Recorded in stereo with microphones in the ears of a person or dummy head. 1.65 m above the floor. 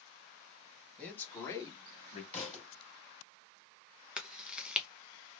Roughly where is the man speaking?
Centre.